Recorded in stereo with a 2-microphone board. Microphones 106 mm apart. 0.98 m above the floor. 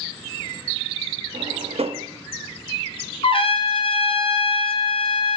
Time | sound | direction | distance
1.3 | a drawer | 70° right (ahead or behind) | 0.6 m
3.2 | a trumpet | 55° left (ahead or behind) | 1.0 m